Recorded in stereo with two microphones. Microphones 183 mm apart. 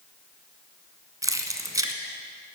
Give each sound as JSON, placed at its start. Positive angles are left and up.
{"t": 1.2, "sound": "keys jangling", "side_deg": -20, "distance_m": 0.8}